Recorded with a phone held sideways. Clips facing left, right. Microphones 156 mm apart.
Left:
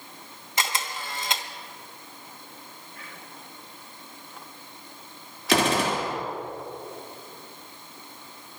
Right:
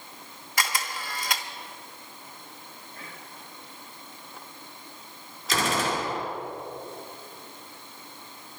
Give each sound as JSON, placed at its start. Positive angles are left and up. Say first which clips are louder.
{"t": 0.6, "sound": "a camera shutter", "louder": "left 1 dB", "side_deg": 25, "distance_m": 0.9}
{"t": 3.0, "sound": "whispering", "louder": "right 1 dB", "side_deg": -30, "distance_m": 3.0}
{"t": 5.5, "sound": "a gunshot", "louder": "left 4 dB", "side_deg": 65, "distance_m": 2.0}